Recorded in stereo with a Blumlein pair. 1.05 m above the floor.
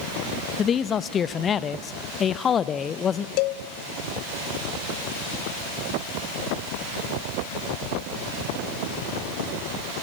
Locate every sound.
0.6 s a man speaking: 25° left, 0.9 m
3.4 s a cowbell: 45° left, 0.8 m